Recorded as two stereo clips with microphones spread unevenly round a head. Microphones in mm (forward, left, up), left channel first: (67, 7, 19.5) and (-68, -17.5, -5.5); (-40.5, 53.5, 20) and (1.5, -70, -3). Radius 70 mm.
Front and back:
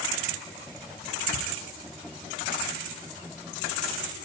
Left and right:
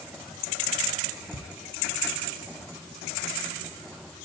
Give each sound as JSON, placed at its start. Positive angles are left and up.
{"t": 1.3, "sound": "ticking", "azimuth_deg": 105, "distance_m": 8.0}